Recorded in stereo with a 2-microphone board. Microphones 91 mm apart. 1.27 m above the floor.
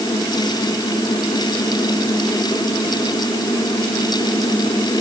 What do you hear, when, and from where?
Only background noise.